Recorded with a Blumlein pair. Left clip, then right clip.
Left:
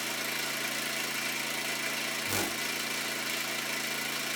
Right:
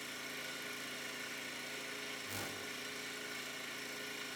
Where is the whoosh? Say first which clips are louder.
Left 12 dB; 35° left, 1.3 m.